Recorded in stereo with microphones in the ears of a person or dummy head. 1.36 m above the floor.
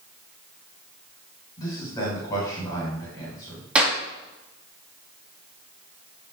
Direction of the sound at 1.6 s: 20° left (ahead or behind).